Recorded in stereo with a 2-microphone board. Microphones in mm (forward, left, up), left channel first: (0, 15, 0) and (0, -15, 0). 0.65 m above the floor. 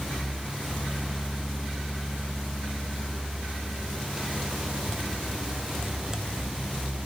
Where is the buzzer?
No buzzer in this recording.